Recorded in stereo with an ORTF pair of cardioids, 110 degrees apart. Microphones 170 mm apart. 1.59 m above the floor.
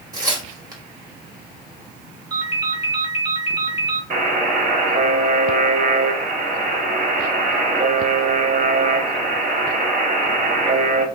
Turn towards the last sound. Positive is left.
turn(degrees=-55)